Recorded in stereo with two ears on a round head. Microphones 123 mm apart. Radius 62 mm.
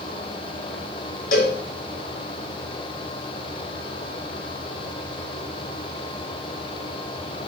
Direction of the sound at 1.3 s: 70° left (ahead or behind).